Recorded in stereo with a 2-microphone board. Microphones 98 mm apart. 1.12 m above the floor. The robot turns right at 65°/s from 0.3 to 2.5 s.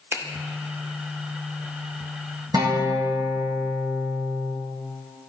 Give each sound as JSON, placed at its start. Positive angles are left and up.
{"t": 0.1, "sound": "a finger snap", "side_deg": -25, "distance_m": 0.6}
{"t": 2.5, "sound": "a guitar", "side_deg": -45, "distance_m": 1.2}